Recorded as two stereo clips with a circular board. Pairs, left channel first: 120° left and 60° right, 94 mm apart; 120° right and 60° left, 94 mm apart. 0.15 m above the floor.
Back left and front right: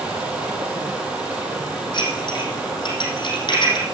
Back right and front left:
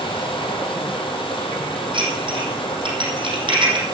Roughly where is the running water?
Behind right.